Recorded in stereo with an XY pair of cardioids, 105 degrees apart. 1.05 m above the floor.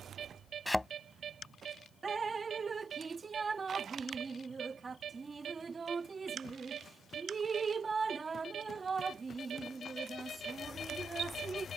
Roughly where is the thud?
Ahead.